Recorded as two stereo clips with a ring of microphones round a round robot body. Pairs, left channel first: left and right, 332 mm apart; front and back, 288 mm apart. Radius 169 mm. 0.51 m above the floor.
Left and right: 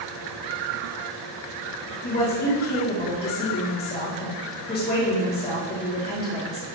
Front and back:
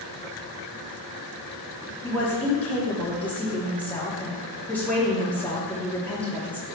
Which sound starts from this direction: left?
A woman speaking, at 2.0 s.